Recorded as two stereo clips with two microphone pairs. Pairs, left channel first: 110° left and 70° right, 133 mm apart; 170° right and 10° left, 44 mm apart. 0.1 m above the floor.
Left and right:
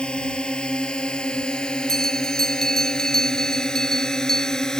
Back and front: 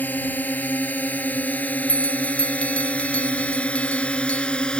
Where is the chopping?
No chopping in this recording.